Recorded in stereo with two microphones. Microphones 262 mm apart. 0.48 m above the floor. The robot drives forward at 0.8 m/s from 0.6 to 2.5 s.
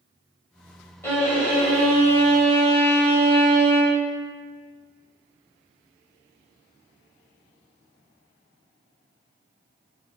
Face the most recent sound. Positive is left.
turn(degrees=5)  # may be behind; listen again after turning